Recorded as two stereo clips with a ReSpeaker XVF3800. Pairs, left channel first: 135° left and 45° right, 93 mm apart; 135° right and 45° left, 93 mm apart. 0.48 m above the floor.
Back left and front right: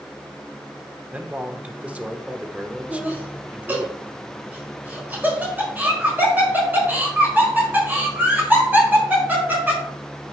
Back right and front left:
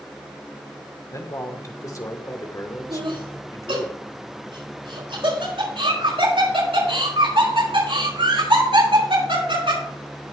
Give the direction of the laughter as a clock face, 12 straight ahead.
11 o'clock.